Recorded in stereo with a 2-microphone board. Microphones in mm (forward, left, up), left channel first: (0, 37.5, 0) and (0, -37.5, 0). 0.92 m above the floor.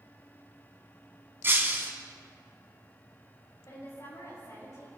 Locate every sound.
1.4 s breaking glass: 35° right (ahead or behind), 2 m
3.7 s a woman speaking: 55° left (ahead or behind), 5 m